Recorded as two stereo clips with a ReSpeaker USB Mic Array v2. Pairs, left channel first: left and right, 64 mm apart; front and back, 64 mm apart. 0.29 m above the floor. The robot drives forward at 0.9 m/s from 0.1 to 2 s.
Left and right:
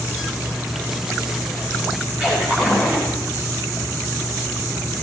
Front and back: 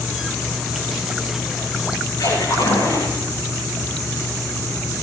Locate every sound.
2.2 s a splash: 20° right, 10 m